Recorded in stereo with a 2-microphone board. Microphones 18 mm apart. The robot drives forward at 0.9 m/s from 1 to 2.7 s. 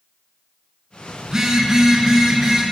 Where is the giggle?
No giggle in this recording.